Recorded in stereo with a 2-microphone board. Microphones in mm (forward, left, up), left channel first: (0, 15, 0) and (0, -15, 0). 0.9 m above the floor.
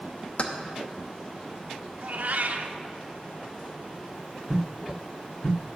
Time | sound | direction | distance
0.4 | keys jangling | 45° left (ahead or behind) | 0.9 m
2.0 | a cat meowing | 65° right (ahead or behind) | 0.7 m